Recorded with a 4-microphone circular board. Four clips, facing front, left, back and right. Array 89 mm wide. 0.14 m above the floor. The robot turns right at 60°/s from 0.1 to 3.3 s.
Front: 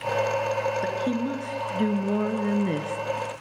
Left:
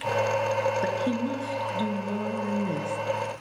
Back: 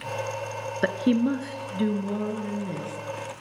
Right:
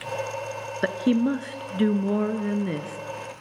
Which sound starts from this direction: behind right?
A woman speaking, at 0.8 s.